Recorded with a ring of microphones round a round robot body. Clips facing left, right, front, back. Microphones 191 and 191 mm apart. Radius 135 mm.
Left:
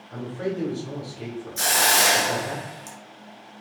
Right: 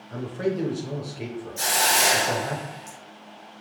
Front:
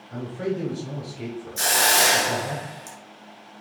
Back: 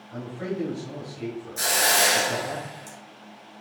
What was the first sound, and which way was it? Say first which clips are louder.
A man speaking: right 2 dB, front 4 dB; 30° right.